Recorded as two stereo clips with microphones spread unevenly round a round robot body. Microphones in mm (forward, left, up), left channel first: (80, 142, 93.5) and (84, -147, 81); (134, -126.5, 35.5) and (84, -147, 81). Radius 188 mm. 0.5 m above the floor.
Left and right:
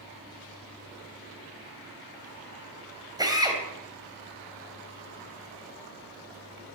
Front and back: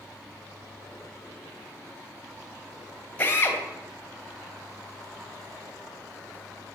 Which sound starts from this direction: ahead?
A drill, at 3.2 s.